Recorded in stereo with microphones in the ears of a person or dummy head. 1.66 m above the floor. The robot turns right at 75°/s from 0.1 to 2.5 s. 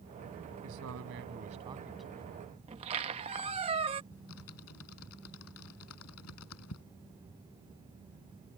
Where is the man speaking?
105° right; by 2.4 s 30° left.